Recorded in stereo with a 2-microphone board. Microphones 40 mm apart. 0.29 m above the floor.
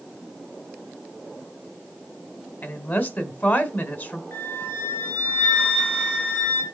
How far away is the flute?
About 2.0 m.